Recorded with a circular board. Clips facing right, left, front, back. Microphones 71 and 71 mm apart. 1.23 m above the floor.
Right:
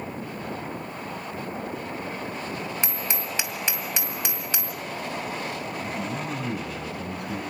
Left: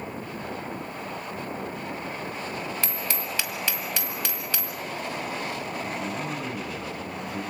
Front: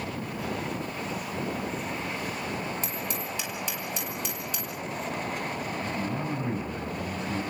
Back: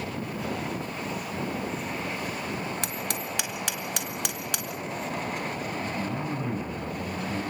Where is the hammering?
160° right, 2 m.